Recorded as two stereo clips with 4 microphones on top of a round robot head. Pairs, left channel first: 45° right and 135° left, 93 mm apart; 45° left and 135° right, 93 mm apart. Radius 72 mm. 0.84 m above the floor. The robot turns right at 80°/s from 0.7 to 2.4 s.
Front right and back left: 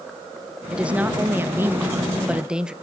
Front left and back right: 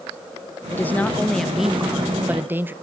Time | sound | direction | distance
0.7 | a woman speaking | 70° left | 0.9 m